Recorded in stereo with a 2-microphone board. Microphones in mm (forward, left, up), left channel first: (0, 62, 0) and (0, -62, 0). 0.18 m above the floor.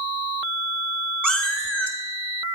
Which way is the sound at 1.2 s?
10° left (ahead or behind).